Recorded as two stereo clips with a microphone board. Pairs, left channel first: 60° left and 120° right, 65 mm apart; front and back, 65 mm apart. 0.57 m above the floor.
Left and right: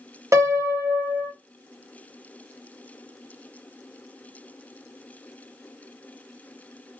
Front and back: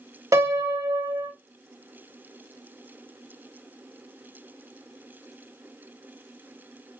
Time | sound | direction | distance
0.3 | a piano | 155° right | 1.8 m